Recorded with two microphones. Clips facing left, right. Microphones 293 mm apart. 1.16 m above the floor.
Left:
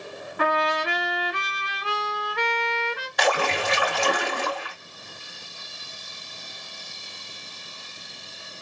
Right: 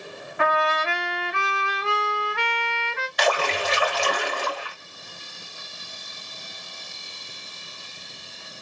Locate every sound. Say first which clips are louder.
0.4 s a trumpet: even; 40° left (ahead or behind), 1.2 m
3.2 s a splash: even; 60° left (ahead or behind), 2.5 m